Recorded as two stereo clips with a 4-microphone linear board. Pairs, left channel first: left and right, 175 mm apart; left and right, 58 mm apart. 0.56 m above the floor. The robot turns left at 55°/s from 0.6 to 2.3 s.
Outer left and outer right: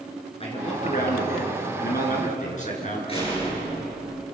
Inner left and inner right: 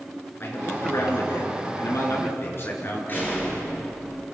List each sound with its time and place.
0.4 s a man speaking: 140° left, 6.5 m; by 3.0 s 50° left, 6.5 m
3.1 s a door slam: 35° left (ahead or behind), 8 m